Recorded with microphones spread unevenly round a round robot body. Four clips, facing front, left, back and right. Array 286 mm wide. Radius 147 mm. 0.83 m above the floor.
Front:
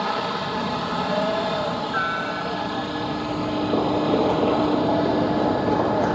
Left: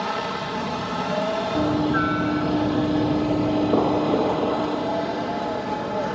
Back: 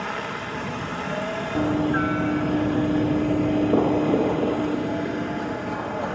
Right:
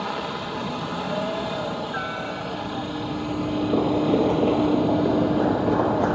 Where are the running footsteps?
135° left; by 6.2 s 65° right.